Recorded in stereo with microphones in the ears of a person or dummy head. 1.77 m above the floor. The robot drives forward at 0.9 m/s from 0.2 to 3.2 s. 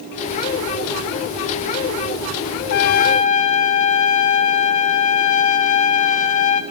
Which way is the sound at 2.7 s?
65° left (ahead or behind).